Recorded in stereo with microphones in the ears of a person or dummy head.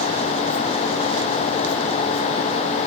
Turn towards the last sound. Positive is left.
No sound to turn to.